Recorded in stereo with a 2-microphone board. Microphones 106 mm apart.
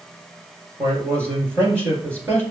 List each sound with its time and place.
0.8 s a man speaking: 25° right (ahead or behind), 2 m